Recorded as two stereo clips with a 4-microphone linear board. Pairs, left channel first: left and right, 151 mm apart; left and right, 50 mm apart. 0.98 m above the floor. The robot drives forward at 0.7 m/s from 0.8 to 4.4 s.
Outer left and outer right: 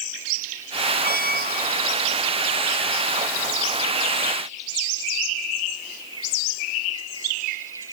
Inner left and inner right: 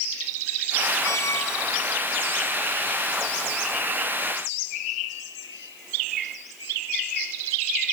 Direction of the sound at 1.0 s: 75° left (ahead or behind).